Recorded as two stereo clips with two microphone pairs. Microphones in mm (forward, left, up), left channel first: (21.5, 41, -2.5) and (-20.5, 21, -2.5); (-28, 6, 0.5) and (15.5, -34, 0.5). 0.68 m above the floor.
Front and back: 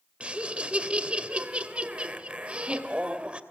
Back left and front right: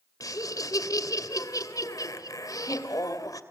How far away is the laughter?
About 2.5 m.